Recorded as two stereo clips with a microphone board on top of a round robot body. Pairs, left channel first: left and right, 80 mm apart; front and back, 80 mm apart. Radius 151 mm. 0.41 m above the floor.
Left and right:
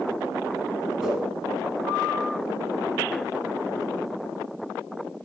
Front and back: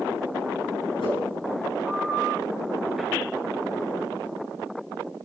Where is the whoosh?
Straight ahead, 5.5 m.